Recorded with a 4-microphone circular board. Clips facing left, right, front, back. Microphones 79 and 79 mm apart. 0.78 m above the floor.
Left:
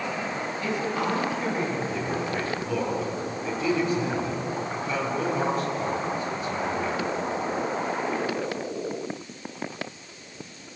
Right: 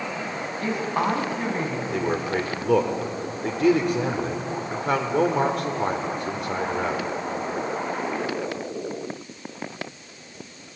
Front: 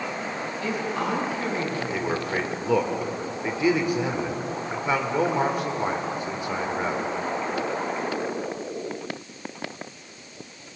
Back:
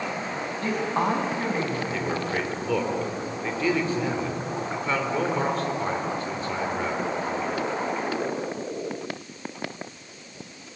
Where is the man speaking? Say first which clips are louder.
Right 4 dB, front 1 dB; 75° right, 3 m.